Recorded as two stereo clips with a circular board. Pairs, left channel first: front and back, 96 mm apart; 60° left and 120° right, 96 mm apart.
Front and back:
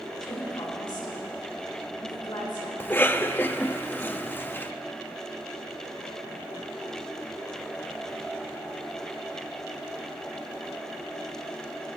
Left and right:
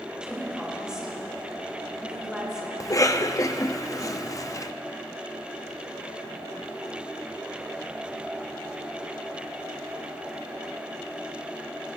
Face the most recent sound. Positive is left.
turn(degrees=50)